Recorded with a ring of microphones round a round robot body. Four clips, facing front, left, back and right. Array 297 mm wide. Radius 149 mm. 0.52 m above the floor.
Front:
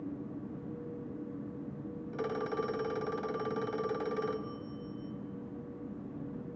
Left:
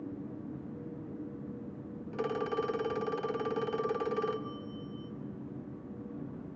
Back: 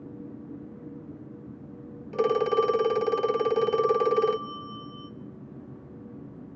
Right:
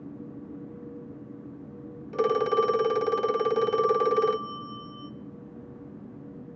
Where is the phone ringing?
140° right, 0.8 m.